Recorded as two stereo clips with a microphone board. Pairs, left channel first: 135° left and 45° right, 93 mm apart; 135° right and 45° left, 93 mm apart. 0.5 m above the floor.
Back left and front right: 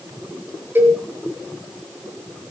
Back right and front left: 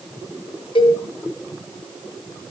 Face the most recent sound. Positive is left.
turn(degrees=-110)